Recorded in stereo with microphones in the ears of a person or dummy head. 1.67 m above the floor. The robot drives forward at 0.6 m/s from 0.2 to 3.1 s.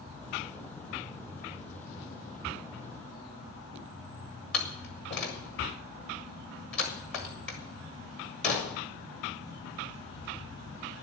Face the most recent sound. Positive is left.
turn(degrees=10)  # may be behind; listen again after turning